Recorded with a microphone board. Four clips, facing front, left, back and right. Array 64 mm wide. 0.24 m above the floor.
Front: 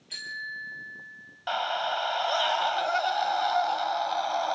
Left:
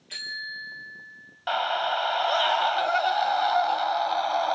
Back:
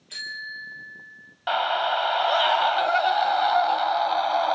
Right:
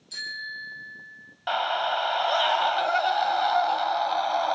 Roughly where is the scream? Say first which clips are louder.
Even, back 5 dB; behind.